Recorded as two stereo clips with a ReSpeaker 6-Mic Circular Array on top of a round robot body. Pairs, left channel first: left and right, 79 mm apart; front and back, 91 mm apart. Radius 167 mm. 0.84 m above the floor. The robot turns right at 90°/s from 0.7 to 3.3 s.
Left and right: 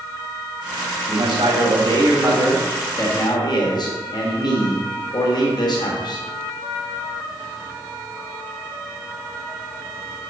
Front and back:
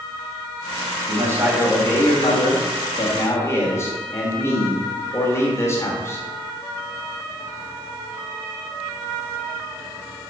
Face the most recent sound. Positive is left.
turn(degrees=60)